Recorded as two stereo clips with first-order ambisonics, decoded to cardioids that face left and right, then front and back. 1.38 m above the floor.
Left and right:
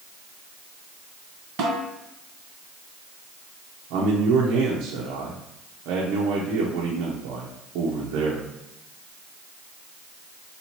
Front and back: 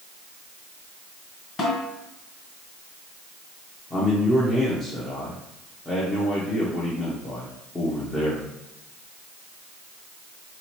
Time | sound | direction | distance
1.6 | a snare drum | 60° right | 1.9 m
3.9 | a man speaking | 75° right | 0.8 m